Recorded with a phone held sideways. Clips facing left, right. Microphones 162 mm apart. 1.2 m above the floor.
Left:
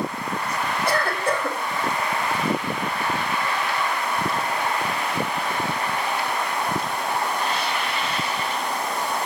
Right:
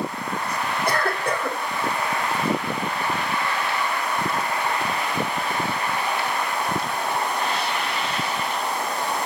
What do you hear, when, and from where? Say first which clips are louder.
0.9 s a cough: left 1 dB; 60° right (ahead or behind), 4.5 m